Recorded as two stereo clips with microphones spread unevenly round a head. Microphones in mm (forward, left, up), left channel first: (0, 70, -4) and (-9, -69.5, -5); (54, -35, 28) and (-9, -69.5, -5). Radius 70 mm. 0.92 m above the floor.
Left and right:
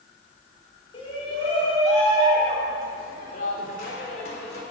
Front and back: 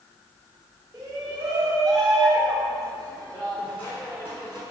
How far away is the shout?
About 3.5 m.